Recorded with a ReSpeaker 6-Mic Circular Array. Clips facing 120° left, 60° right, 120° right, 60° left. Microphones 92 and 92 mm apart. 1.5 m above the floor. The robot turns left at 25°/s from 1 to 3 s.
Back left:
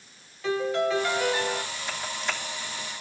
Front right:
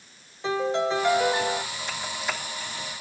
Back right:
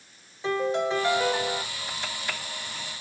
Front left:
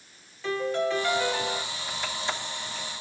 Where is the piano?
80° right, 1.4 m; by 1.6 s 95° right, 1.4 m.